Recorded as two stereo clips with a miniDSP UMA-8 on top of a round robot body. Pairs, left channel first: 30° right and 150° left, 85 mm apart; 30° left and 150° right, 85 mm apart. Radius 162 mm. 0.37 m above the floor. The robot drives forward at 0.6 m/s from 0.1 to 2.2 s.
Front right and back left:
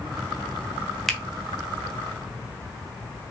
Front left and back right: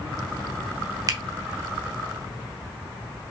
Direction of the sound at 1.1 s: 120° right.